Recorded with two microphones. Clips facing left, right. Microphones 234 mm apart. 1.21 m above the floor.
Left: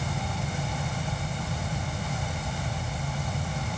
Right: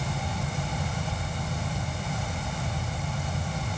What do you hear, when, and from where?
Only background noise.